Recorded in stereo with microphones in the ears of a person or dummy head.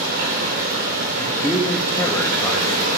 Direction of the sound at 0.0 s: 65° right (ahead or behind).